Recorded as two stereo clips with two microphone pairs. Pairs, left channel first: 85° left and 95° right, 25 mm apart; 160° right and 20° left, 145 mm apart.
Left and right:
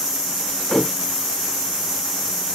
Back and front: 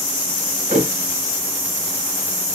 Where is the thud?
30° left, 1.5 m.